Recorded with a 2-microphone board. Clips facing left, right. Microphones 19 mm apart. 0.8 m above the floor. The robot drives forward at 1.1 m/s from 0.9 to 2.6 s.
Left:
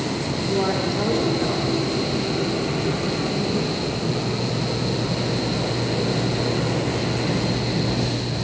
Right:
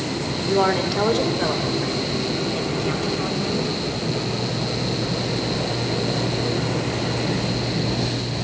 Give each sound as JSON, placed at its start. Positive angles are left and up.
{"t": 0.4, "sound": "a woman speaking", "side_deg": -30, "distance_m": 3.0}